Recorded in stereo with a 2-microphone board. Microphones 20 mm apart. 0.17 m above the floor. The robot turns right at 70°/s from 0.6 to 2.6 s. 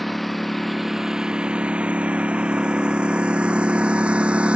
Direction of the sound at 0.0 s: 5° left (ahead or behind).